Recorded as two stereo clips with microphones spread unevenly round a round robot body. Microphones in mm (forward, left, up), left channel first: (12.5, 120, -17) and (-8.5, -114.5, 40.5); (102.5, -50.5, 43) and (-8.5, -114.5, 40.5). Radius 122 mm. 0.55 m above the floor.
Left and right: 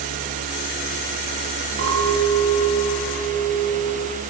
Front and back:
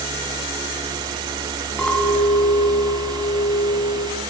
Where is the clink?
55° right, 4.5 m.